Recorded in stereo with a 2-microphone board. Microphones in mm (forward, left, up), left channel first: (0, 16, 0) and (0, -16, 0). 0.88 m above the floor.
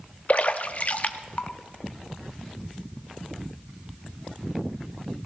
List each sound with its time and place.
0.3 s a splash: 45° left (ahead or behind), 0.7 m